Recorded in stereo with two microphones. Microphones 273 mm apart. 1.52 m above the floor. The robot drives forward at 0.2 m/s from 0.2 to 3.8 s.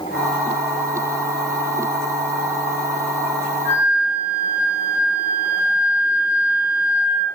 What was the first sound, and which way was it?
A flute, 40° left (ahead or behind).